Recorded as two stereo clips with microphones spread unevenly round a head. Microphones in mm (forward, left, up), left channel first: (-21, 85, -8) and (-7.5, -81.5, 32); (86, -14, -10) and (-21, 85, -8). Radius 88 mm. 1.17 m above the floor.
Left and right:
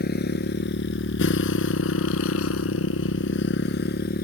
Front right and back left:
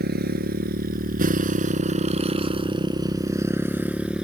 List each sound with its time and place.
0.0 s a motorcycle: 130° left; by 4.2 s 55° left